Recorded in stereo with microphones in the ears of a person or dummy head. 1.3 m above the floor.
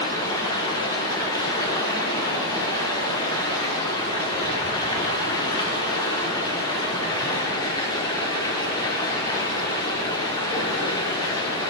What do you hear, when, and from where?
0.0 s running water: 20° left (ahead or behind), 1.3 m